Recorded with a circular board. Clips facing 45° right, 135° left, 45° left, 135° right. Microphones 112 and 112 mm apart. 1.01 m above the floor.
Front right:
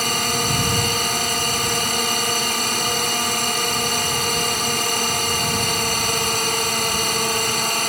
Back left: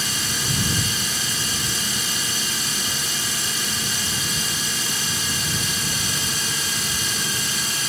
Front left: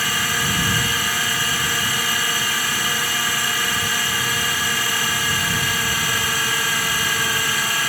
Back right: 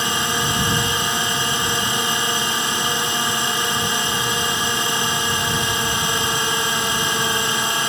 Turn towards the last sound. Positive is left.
turn(degrees=-70)